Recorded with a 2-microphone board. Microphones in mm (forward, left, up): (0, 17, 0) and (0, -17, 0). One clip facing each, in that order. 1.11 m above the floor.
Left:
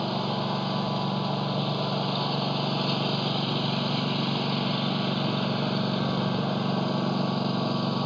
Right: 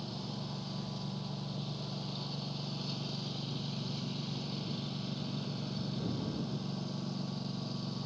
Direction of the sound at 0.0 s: 55° left (ahead or behind).